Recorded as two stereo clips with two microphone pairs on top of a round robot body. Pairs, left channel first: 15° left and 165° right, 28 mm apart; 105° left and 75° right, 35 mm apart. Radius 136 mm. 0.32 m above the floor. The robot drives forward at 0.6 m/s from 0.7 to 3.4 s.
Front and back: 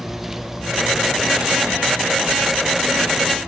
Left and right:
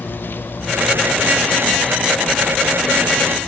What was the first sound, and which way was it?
An insect, 120° left.